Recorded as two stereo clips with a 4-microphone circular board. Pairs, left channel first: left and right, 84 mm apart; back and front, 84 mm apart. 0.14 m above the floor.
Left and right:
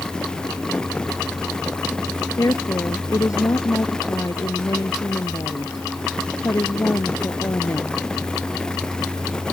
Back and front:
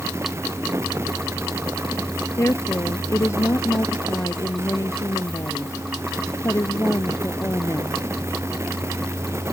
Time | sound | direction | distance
2.4 | a woman speaking | 130° left | ?